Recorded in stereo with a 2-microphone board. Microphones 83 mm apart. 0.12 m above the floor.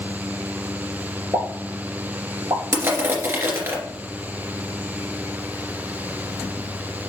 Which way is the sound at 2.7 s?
30° right (ahead or behind).